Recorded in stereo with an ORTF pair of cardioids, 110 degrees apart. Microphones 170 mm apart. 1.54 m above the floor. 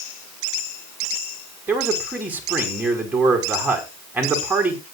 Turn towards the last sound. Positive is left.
turn(degrees=-10)